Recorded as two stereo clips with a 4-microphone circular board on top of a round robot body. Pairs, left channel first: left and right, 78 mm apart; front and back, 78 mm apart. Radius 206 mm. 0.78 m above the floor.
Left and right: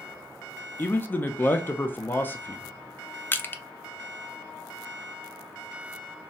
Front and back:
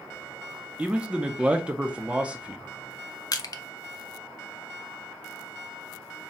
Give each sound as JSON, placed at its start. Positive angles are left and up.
{"t": 0.8, "sound": "a man speaking", "azimuth_deg": 120, "distance_m": 0.6}
{"t": 3.3, "sound": "crushing", "azimuth_deg": 25, "distance_m": 0.6}